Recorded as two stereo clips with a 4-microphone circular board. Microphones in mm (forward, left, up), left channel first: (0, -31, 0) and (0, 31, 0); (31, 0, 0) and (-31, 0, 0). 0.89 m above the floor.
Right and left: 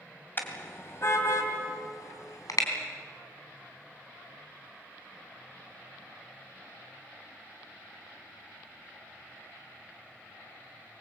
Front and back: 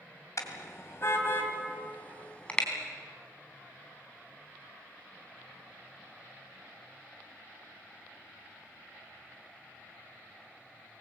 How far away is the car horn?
About 2.5 m.